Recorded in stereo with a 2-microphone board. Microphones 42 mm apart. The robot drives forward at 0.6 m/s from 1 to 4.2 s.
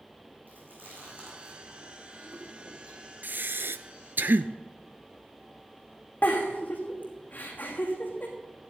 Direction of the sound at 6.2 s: 40° left (ahead or behind).